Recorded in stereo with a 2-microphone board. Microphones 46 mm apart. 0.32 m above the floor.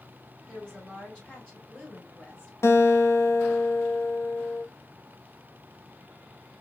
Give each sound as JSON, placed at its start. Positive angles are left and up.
{"t": 0.5, "sound": "a woman speaking", "side_deg": 25, "distance_m": 2.5}
{"t": 2.6, "sound": "a guitar", "side_deg": 75, "distance_m": 0.6}